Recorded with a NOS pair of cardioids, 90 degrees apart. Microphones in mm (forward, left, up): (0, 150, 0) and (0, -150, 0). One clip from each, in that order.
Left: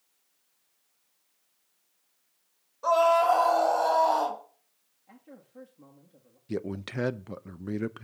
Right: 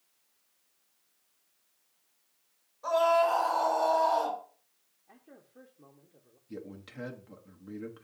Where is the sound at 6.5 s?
60° left, 0.6 m.